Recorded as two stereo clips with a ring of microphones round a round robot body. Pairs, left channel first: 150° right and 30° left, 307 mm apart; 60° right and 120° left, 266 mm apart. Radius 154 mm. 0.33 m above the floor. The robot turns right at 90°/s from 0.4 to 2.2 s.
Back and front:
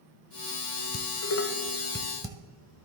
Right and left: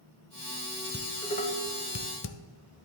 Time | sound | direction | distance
0.9 | dishes clattering | 160° right | 1.0 m